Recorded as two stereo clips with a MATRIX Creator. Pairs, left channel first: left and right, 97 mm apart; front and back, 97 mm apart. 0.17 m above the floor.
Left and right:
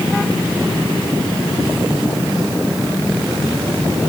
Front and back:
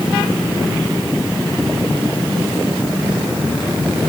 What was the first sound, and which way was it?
Only background noise.